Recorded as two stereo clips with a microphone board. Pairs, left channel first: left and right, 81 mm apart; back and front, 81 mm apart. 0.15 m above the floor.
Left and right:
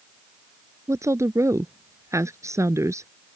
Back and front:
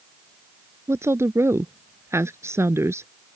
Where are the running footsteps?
No running footsteps in this recording.